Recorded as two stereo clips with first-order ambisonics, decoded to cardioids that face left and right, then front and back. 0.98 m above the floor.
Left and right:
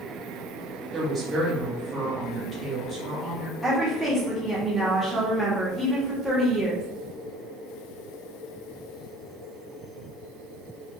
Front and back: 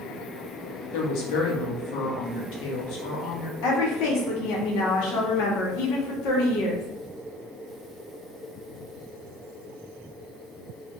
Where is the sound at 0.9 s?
15° right, 1.2 m.